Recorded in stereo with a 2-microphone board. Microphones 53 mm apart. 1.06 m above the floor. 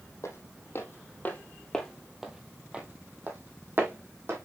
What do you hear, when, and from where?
0.2 s footsteps: 60° left (ahead or behind), 2.5 m; by 4.5 s 50° right (ahead or behind), 4 m